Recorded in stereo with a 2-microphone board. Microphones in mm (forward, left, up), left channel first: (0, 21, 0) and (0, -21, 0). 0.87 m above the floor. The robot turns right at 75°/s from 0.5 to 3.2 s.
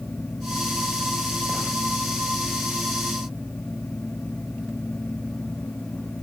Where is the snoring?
I don't hear snoring.